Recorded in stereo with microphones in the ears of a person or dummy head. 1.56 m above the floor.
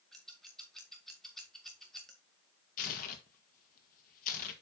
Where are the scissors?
5° left (ahead or behind), 2 m.